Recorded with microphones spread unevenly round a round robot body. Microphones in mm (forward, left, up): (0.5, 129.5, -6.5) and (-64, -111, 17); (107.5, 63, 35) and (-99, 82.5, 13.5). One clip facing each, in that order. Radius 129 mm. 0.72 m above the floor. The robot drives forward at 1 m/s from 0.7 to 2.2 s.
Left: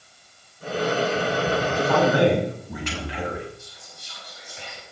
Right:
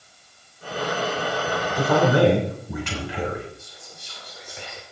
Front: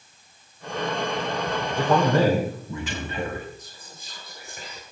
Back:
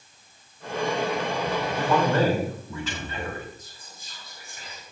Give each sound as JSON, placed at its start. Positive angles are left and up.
{"t": 1.8, "sound": "a man speaking", "azimuth_deg": -75, "distance_m": 3.5}
{"t": 3.6, "sound": "whispering", "azimuth_deg": -55, "distance_m": 1.9}